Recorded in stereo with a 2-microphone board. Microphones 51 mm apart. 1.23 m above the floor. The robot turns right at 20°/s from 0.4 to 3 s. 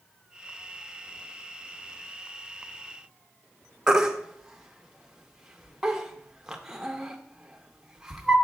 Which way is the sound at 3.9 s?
10° right (ahead or behind).